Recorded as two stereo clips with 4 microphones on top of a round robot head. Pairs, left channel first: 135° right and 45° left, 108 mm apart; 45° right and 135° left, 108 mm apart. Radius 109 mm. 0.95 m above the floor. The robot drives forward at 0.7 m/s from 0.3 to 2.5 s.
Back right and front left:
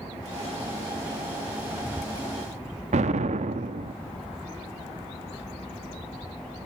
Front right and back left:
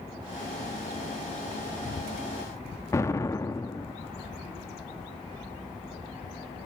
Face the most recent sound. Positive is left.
turn(degrees=20)